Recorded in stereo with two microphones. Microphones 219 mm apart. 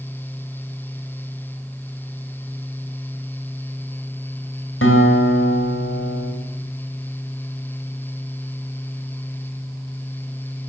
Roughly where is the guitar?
Left.